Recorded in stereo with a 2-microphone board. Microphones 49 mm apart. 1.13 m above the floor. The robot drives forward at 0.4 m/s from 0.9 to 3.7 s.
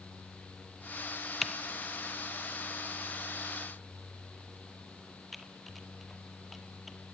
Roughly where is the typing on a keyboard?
Centre.